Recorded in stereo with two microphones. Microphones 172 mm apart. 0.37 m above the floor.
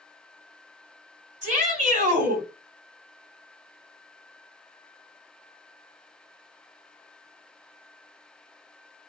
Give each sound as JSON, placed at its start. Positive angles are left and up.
{"t": 1.4, "sound": "a shout", "side_deg": -40, "distance_m": 1.8}